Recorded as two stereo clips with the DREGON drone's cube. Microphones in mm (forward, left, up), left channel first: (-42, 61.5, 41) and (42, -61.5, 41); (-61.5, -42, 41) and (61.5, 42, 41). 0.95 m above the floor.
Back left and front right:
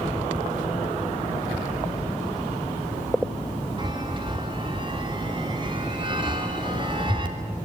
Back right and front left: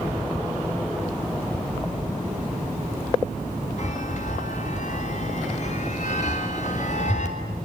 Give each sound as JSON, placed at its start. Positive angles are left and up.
{"t": 3.8, "sound": "a chime", "azimuth_deg": -110, "distance_m": 3.5}